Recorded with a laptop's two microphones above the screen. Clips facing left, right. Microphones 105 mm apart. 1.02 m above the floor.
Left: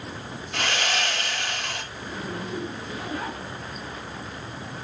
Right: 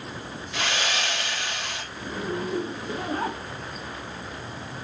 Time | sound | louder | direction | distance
0.5 | sawing | left 1 dB | 50° left (ahead or behind) | 3.5 m
1.9 | a zipper | right 7 dB | 40° right (ahead or behind) | 1.3 m